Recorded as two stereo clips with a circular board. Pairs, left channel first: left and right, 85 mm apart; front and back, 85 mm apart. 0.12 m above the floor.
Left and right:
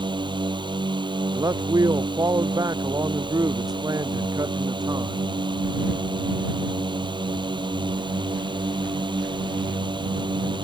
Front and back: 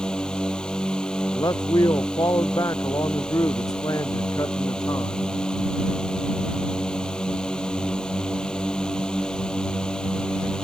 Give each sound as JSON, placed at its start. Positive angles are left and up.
{"t": 0.0, "sound": "a drone", "azimuth_deg": -80}
{"t": 1.3, "sound": "a man speaking", "azimuth_deg": -45}